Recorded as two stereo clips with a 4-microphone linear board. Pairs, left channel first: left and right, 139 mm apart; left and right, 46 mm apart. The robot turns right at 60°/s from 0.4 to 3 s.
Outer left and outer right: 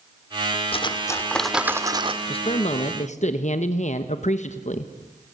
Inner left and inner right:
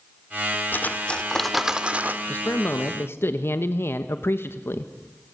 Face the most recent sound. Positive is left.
turn(degrees=90)